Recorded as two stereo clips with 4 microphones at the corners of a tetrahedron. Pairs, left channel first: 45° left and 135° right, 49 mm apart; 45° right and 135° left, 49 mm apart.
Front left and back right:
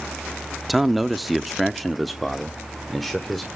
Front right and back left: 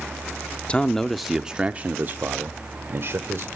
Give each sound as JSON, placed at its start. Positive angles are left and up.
{"t": 0.7, "sound": "a man speaking", "azimuth_deg": -50, "distance_m": 0.6}